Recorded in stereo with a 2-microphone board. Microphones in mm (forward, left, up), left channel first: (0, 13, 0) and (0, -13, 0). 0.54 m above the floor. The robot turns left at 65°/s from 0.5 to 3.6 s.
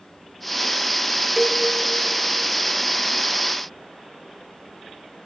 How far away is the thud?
No thud in this recording.